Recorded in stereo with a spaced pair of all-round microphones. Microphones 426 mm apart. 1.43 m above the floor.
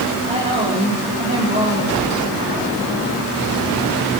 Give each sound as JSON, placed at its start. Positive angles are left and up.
{"t": 0.3, "sound": "a woman speaking", "side_deg": -15, "distance_m": 4.5}